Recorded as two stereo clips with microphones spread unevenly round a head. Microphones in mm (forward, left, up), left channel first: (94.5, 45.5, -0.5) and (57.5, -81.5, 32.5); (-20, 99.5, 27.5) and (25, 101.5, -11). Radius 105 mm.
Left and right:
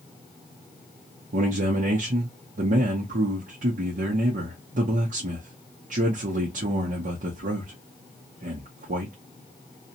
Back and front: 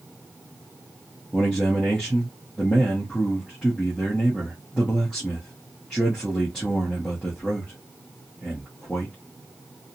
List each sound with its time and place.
1.3 s a man speaking: 110° right, 0.6 m